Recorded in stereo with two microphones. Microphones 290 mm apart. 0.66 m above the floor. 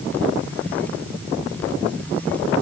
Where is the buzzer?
No buzzer in this recording.